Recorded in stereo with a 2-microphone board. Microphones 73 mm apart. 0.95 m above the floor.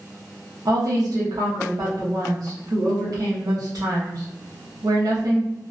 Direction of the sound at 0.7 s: 55° right (ahead or behind).